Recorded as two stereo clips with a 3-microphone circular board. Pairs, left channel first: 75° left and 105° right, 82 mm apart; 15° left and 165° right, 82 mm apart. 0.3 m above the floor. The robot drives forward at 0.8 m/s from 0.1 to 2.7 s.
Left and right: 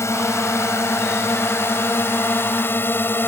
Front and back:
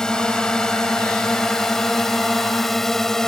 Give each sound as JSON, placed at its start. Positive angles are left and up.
{"t": 0.0, "sound": "a drone", "azimuth_deg": 90}